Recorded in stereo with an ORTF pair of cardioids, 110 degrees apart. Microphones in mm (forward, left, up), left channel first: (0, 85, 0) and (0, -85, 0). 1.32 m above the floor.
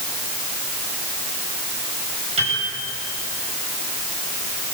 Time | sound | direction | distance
2.4 | a piano | 40° right | 9.5 m